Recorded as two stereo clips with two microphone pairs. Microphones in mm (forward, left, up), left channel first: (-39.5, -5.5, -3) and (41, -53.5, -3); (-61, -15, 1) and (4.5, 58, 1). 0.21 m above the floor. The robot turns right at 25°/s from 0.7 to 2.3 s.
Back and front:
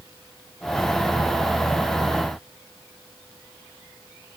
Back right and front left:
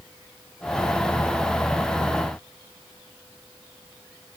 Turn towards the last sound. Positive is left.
No sound to turn to.